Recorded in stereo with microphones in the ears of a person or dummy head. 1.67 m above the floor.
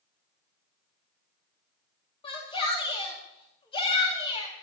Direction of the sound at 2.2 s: 25° left (ahead or behind).